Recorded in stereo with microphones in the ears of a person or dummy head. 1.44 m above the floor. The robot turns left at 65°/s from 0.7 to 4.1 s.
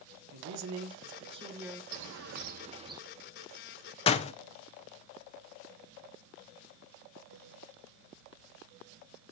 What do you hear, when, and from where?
0.3 s a man speaking: 110° right, 1.3 m; by 1.8 s straight behind, 1.3 m
1.9 s a bird: 90° right, 0.9 m; by 3.0 s 160° right, 0.9 m
4.1 s a door slam: 30° left (ahead or behind), 0.6 m; by 4.3 s 35° left (ahead or behind), 0.6 m